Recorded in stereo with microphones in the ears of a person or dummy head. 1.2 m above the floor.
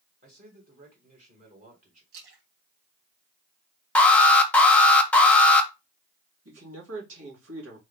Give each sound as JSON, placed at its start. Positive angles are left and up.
{"t": 0.2, "sound": "a man speaking", "side_deg": -40, "distance_m": 1.8}
{"t": 2.1, "sound": "a splash", "side_deg": -70, "distance_m": 2.5}
{"t": 4.0, "sound": "an alarm", "side_deg": 5, "distance_m": 0.8}
{"t": 6.5, "sound": "a man speaking", "side_deg": -75, "distance_m": 2.5}